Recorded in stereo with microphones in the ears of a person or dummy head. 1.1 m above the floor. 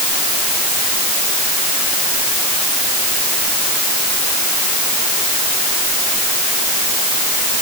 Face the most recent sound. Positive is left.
No sound to turn to.